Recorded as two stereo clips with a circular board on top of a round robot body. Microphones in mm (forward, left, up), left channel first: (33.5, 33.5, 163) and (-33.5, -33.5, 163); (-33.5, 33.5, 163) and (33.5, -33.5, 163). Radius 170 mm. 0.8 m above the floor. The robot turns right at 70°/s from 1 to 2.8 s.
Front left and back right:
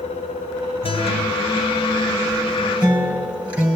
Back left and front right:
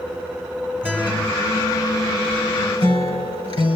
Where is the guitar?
25° left, 4 m; by 3.8 s 150° left, 4 m.